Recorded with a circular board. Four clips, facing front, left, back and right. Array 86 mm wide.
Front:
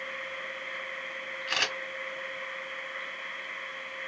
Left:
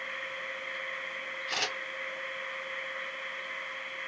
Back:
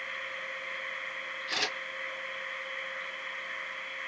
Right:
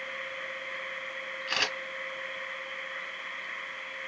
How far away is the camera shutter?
About 2.5 m.